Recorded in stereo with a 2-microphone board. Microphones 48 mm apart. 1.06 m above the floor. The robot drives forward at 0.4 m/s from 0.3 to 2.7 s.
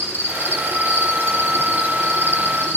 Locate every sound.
0.0 s an insect: 40° right (ahead or behind), 7 m; by 2.8 s 45° right (ahead or behind), 6.5 m